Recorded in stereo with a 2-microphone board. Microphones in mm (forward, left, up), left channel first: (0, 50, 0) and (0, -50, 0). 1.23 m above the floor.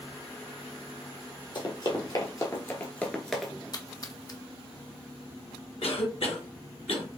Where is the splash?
40° left (ahead or behind), 0.6 m.